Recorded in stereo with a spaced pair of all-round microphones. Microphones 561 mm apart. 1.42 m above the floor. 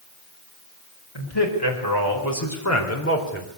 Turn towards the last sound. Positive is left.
turn(degrees=15)  # may be behind; listen again after turning